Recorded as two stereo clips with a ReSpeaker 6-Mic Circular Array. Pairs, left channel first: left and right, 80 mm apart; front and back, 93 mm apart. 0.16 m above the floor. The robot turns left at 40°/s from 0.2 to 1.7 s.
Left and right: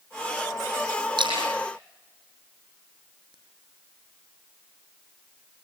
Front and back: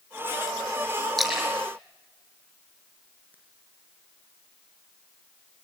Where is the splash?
85° right, 6 m; by 3.3 s 110° right, 6 m.